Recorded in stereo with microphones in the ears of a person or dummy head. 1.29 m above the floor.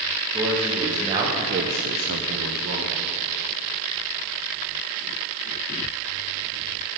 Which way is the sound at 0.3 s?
5° right (ahead or behind).